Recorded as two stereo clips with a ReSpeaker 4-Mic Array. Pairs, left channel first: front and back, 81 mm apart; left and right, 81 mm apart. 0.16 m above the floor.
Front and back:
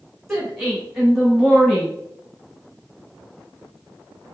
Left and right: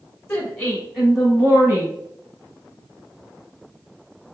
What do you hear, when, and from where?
0.3 s a woman speaking: 105° left, 1.5 m; by 1.9 s 85° right, 1.8 m